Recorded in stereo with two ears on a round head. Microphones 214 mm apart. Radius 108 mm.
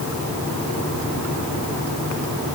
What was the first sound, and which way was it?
Only background noise.